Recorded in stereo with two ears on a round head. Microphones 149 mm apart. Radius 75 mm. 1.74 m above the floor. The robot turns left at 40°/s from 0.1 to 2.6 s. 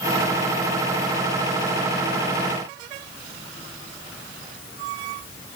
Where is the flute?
No flute in this recording.